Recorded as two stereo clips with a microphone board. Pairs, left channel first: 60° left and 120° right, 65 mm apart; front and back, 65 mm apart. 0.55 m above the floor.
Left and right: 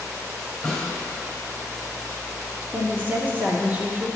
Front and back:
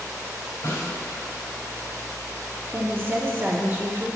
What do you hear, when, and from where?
0.6 s a snare drum: 25° right, 3 m
2.7 s a woman speaking: 160° right, 0.9 m